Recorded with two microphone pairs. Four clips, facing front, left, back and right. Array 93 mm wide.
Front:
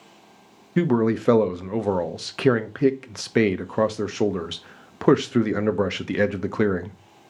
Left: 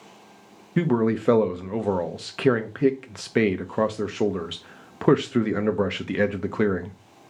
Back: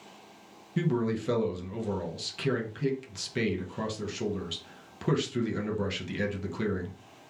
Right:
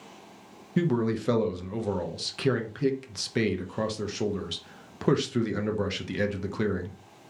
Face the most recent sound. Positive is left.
turn(degrees=35)